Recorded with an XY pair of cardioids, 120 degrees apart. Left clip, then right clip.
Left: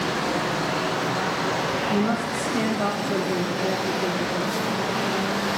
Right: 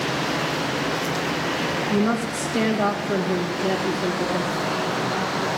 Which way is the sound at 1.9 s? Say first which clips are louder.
Right 1 dB; 30° right.